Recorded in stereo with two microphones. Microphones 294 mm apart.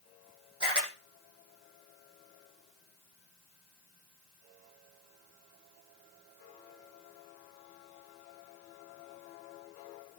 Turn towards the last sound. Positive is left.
turn(degrees=-15)  # may be behind; listen again after turning